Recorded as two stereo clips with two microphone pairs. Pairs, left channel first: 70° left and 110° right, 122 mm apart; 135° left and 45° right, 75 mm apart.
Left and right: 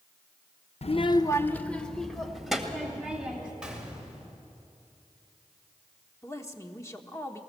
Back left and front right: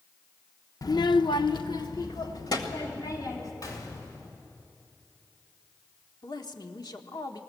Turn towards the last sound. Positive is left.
turn(degrees=130)